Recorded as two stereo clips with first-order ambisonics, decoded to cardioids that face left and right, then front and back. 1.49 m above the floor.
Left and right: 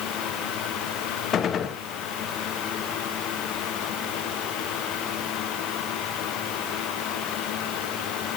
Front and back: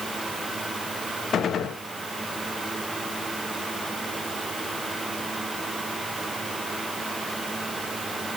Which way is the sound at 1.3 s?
50° left.